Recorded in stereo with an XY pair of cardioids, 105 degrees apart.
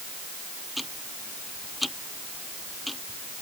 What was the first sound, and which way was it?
Ticking, 5° left.